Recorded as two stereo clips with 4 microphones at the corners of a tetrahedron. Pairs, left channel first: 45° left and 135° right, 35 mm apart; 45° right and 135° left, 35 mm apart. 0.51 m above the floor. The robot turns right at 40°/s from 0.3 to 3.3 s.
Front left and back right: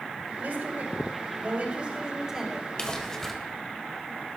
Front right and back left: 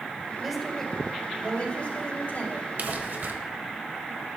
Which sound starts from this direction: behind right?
A woman speaking, at 0.4 s.